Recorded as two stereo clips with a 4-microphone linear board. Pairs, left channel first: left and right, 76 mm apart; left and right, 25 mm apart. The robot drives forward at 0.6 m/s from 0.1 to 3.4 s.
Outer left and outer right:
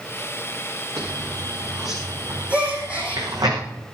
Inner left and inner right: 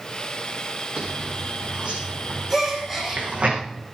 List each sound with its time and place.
1.0 s a zipper: 50° right (ahead or behind), 8 m; by 3.5 s 60° right (ahead or behind), 7.5 m
2.5 s a gasp: 15° right (ahead or behind), 8 m